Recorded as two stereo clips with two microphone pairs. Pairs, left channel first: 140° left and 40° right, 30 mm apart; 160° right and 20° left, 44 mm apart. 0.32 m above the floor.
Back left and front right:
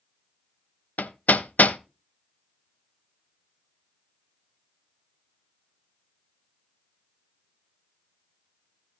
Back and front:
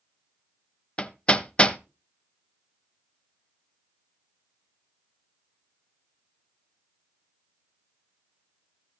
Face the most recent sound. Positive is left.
turn(degrees=140)